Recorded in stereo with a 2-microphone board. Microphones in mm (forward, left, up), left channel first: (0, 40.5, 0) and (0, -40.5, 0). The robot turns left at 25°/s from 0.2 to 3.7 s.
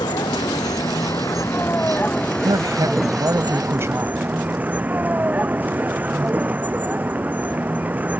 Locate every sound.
0.0 s a vehicle: 65° left; by 8.2 s 20° right
2.4 s a woman speaking: 115° right; by 4.2 s 145° right